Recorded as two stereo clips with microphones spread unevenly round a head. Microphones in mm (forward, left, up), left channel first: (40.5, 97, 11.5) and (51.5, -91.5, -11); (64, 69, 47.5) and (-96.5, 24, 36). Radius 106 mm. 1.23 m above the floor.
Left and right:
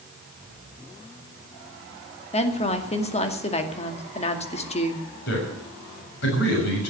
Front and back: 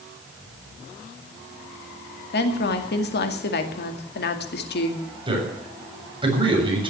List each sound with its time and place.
2.3 s a woman speaking: 35° left, 2.5 m
5.3 s a man speaking: 135° left, 7 m